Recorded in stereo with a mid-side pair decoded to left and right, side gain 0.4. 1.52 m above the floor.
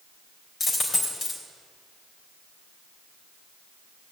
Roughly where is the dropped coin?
Ahead left.